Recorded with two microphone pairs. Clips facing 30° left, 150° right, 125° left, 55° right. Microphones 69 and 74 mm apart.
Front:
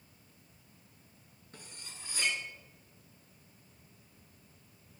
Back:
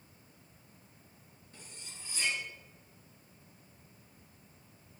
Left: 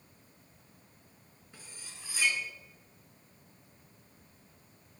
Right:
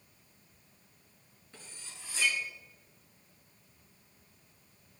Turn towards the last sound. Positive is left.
turn(degrees=45)